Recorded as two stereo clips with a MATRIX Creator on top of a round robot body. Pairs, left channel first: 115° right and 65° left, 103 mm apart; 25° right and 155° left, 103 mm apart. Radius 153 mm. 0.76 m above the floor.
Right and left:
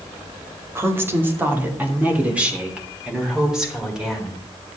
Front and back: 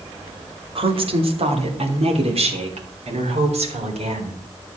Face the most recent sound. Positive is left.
turn(degrees=155)